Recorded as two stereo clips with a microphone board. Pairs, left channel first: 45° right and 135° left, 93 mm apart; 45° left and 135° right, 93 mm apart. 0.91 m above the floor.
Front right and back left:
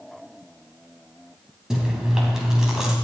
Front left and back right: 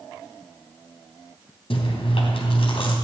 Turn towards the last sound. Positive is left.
turn(degrees=50)